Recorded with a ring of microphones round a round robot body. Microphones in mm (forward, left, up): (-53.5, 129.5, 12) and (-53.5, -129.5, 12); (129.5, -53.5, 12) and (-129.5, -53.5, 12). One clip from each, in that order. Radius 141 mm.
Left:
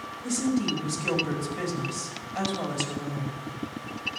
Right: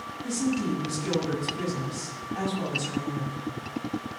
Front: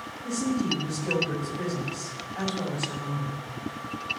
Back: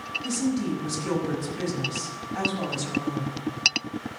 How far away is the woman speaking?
About 5.5 m.